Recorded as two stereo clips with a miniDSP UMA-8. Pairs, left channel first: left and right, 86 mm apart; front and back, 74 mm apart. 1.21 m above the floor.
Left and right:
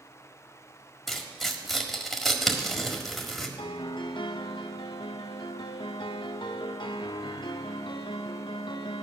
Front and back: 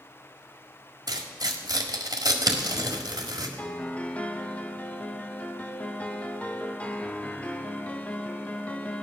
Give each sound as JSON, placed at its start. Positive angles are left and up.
{"t": 1.1, "sound": "tearing paper", "azimuth_deg": 180, "distance_m": 1.7}
{"t": 3.6, "sound": "a piano", "azimuth_deg": 70, "distance_m": 0.8}